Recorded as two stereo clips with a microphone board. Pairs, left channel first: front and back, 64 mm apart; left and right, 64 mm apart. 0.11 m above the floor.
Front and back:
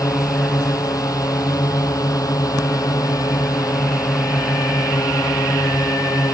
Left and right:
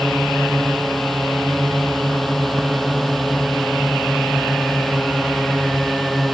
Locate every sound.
0.0 s a drone: straight ahead